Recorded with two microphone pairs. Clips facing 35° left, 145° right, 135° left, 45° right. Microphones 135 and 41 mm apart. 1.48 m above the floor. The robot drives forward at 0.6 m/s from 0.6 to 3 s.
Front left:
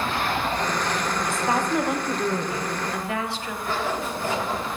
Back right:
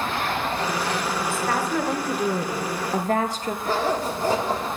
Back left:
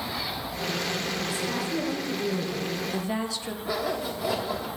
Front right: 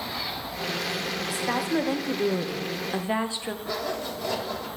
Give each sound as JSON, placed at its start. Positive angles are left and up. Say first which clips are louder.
{"t": 1.3, "sound": "a woman speaking", "louder": "front left 2 dB, front right 2 dB", "azimuth_deg": -35, "distance_m": 1.1}
{"t": 3.6, "sound": "a zipper", "louder": "back right 3 dB, back left 3 dB", "azimuth_deg": -155, "distance_m": 1.2}